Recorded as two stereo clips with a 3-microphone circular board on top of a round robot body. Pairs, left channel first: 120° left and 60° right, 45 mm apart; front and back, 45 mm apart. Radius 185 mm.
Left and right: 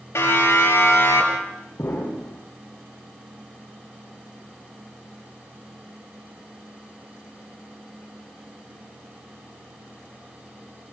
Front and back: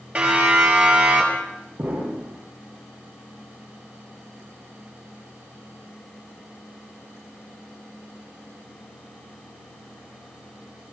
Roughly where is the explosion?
Behind left.